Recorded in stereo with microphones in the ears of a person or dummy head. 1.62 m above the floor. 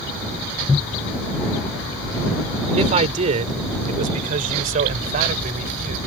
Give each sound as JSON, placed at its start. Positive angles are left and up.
{"t": 2.8, "sound": "a man speaking", "side_deg": -35}